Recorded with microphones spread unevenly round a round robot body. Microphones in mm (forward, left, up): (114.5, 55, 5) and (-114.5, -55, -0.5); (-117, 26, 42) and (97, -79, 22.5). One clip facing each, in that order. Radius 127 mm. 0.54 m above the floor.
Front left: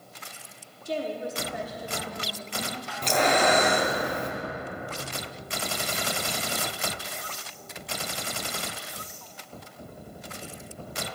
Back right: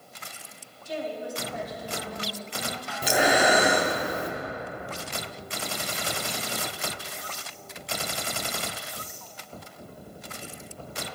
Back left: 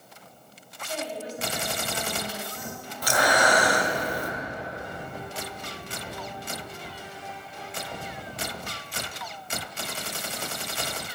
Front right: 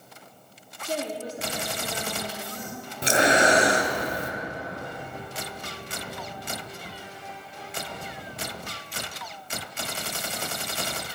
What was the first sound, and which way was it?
A woman speaking, 10° right.